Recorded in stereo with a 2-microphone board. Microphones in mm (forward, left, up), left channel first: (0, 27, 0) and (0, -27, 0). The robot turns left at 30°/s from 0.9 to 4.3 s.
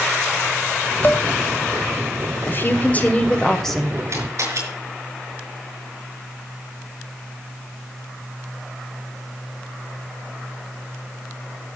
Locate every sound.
1.0 s dishes clattering: 40° left (ahead or behind), 1.4 m; by 1.2 s 30° left (ahead or behind), 1.4 m
2.5 s a woman speaking: 45° left, 1.8 m; by 4.0 s straight ahead, 1.8 m
4.1 s a camera shutter: 60° right (ahead or behind), 5 m; by 4.6 s 65° right (ahead or behind), 5 m